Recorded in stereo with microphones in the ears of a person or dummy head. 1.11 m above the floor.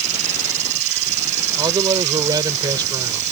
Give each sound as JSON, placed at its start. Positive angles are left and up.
{"t": 0.0, "sound": "an insect", "side_deg": -40}
{"t": 1.6, "sound": "a man speaking", "side_deg": -25}